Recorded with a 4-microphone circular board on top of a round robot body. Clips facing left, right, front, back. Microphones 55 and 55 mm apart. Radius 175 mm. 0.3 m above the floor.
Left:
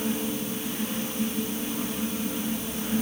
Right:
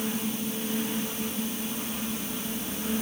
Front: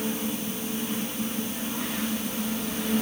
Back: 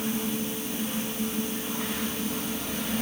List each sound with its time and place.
Only background noise.